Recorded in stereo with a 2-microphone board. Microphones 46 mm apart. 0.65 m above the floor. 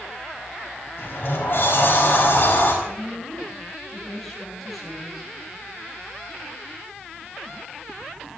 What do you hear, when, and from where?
1.0 s a sliding door: 55° left (ahead or behind), 4 m
2.8 s a woman speaking: centre (ahead or behind), 9.5 m